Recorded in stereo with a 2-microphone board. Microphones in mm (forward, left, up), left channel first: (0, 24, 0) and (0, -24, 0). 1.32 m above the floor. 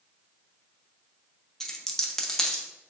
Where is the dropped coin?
10° left (ahead or behind), 0.6 m.